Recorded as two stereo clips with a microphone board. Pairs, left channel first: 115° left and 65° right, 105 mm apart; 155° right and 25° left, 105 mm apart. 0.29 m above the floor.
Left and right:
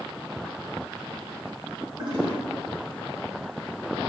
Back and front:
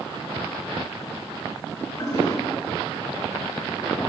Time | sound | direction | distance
2.0 | a toilet flushing | 100° right | 3 m